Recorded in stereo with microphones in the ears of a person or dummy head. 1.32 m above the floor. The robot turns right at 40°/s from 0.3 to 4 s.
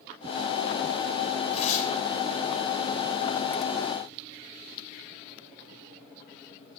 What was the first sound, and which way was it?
Tearing paper, 35° left (ahead or behind).